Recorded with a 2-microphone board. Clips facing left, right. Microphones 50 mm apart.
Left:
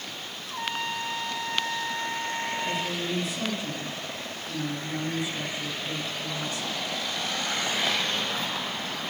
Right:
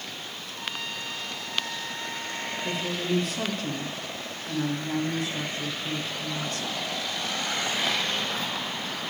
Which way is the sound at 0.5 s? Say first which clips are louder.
Left 5 dB; 45° left (ahead or behind).